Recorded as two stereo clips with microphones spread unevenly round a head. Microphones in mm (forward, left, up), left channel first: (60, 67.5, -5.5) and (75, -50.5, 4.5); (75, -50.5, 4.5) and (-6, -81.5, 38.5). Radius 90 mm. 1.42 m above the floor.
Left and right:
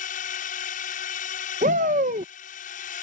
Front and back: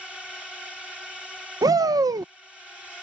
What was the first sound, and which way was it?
A drone, 115° left.